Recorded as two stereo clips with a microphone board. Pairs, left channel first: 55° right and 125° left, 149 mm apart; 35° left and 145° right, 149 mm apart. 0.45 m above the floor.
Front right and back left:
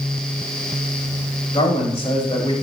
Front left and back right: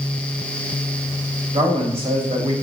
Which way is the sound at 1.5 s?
100° right.